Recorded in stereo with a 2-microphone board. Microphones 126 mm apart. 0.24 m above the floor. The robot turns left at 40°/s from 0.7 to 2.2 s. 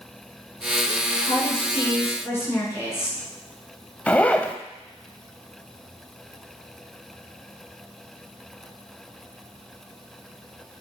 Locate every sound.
1.2 s a woman speaking: 60° left, 3 m; by 3.2 s 20° left, 3 m
4.1 s a zipper: 10° left (ahead or behind), 0.6 m